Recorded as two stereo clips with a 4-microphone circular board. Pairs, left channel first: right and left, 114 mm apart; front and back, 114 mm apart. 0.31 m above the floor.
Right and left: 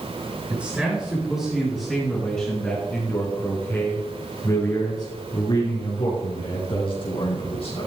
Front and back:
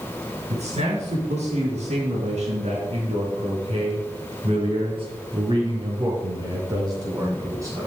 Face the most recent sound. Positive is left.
turn(degrees=-120)